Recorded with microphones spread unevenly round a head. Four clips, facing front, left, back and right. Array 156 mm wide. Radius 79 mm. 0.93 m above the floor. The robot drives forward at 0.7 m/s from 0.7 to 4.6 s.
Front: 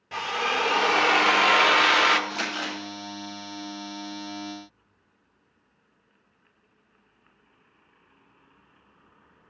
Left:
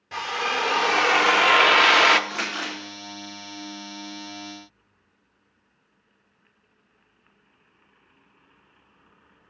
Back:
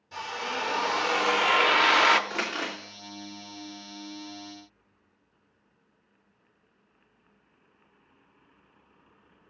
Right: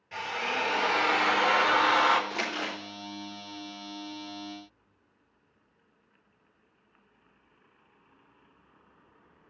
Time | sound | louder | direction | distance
0.1 | a drill | left 5 dB, front 6 dB | 35° left | 1.2 m
2.3 | crumpling | left 2 dB, front 1 dB | 155° left | 3 m